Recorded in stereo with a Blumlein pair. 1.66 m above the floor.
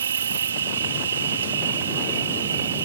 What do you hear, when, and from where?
0.0 s an insect: 65° right